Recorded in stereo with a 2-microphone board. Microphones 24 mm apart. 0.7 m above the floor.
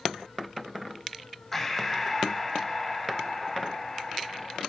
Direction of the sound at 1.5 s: 10° left (ahead or behind).